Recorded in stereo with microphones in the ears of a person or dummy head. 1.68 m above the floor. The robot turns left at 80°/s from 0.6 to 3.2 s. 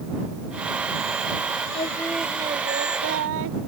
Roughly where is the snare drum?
No snare drum in this recording.